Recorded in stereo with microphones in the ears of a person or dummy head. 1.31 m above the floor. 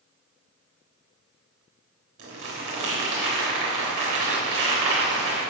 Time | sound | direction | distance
2.2 | crumpling | 85° right | 4 m